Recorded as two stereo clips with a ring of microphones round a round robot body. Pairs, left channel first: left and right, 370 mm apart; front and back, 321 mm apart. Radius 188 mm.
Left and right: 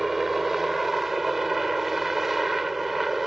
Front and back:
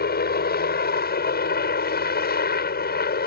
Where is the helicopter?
Straight ahead.